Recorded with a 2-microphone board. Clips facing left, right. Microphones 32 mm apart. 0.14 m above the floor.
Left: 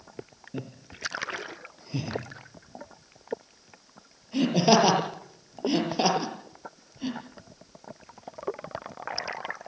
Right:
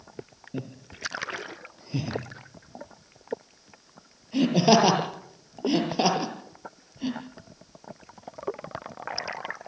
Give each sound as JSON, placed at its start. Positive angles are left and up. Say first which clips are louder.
{"t": 0.5, "sound": "laughter", "louder": "right 2 dB", "side_deg": -5, "distance_m": 6.5}